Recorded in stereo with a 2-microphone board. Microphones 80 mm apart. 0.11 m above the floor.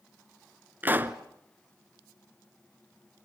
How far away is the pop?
About 1.0 m.